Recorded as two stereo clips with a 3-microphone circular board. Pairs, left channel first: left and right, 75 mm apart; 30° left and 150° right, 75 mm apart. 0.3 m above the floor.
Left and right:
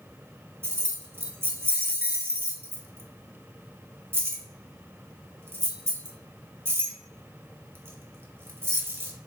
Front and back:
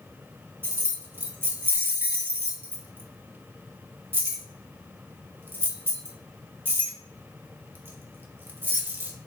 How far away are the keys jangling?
About 0.8 m.